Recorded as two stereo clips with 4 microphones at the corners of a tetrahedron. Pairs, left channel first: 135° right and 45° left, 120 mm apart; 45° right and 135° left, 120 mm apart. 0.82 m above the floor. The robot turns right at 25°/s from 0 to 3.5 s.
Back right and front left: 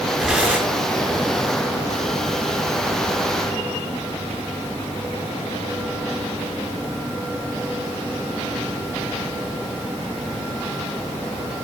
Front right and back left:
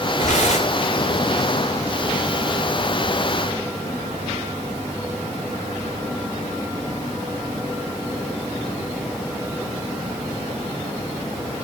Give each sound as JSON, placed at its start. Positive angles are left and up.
{"t": 0.2, "sound": "tearing paper", "azimuth_deg": -40, "distance_m": 6.0}